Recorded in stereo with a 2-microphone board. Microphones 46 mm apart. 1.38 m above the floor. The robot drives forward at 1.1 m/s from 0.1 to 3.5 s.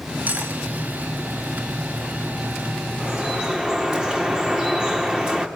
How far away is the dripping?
About 4 m.